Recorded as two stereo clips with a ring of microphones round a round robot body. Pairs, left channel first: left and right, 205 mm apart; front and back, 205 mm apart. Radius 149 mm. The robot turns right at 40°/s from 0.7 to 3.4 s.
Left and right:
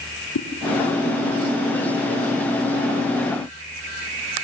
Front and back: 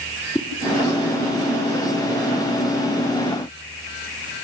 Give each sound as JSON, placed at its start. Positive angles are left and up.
{"t": 0.3, "sound": "a whoosh", "azimuth_deg": 75, "distance_m": 2.5}